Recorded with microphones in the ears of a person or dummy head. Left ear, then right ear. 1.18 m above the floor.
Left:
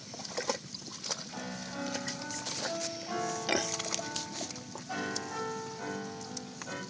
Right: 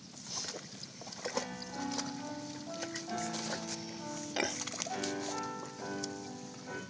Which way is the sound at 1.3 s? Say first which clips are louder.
Right 1 dB; 30° left (ahead or behind).